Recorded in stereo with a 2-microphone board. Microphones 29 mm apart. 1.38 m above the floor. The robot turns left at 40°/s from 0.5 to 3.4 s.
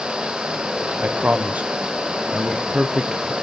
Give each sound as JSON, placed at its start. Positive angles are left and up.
{"t": 1.0, "sound": "a man speaking", "side_deg": -65, "distance_m": 0.6}